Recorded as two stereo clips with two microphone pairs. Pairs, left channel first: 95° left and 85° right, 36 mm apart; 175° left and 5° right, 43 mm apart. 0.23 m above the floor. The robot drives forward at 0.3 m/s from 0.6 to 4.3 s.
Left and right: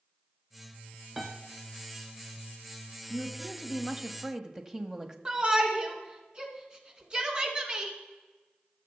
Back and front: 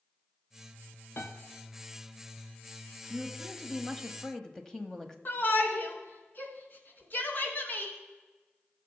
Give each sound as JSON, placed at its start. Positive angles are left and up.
{"t": 1.2, "sound": "a piano", "azimuth_deg": -165, "distance_m": 1.2}
{"t": 3.1, "sound": "a woman speaking", "azimuth_deg": -65, "distance_m": 1.0}
{"t": 5.2, "sound": "a shout", "azimuth_deg": -145, "distance_m": 2.0}